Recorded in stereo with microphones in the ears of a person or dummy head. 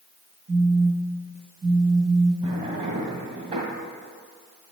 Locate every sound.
0.5 s a phone buzzing: 60° right (ahead or behind), 1.6 m
2.4 s a drawer: 25° right (ahead or behind), 1.6 m